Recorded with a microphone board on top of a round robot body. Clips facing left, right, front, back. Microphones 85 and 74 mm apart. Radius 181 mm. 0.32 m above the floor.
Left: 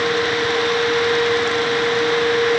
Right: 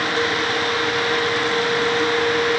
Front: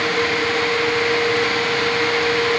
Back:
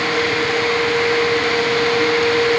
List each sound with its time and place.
Only background noise.